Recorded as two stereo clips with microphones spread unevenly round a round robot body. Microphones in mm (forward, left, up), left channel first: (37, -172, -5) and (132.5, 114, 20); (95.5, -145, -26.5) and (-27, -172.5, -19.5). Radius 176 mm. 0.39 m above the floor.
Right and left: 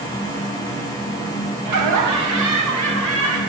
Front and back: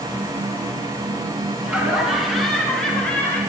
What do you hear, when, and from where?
1.6 s laughter: 60° left, 2.5 m; by 3.4 s 35° left, 4.5 m